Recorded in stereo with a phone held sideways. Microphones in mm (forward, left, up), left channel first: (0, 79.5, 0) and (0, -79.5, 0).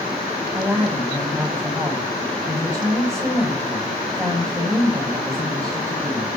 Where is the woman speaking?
15° right (ahead or behind), 5 m.